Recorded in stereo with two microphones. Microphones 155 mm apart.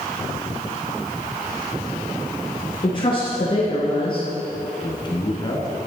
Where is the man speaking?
30° left (ahead or behind), 1.3 m.